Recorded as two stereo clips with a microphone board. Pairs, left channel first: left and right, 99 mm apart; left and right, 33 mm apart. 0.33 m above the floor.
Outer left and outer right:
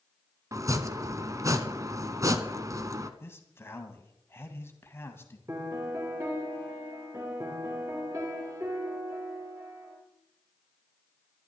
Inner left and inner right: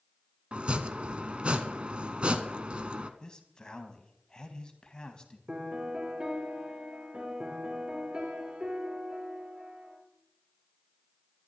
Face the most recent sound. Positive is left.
turn(degrees=-35)  # may be behind; listen again after turning